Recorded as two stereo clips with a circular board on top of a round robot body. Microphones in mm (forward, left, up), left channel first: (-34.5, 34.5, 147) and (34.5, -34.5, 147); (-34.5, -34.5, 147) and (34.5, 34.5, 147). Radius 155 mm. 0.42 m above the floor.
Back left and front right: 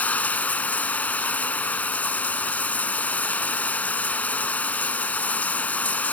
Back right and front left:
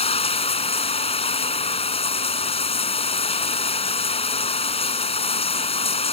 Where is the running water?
150° right.